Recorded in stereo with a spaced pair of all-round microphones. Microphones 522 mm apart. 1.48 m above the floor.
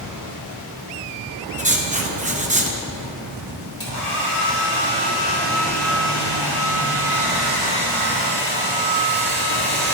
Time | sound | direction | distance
1.6 | writing | 15° right (ahead or behind) | 0.8 m
3.8 | a hair dryer | 80° left | 2.5 m